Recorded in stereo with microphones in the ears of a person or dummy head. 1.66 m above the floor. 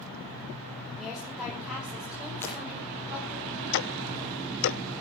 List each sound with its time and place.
1.0 s a woman speaking: centre (ahead or behind), 5 m; by 3.4 s 5° right (ahead or behind), 8 m
2.4 s breaking glass: 10° left (ahead or behind), 10 m
3.7 s ticking: 60° left (ahead or behind), 0.8 m